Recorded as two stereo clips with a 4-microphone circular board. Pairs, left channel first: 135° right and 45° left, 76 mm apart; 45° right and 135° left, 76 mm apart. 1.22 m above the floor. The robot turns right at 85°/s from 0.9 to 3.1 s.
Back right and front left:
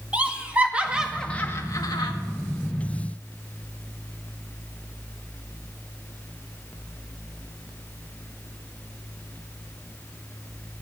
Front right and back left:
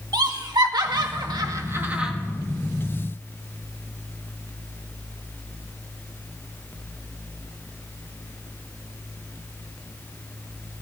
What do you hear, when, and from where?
0.1 s laughter: 115° left, 1.9 m; by 2.1 s 140° right, 1.9 m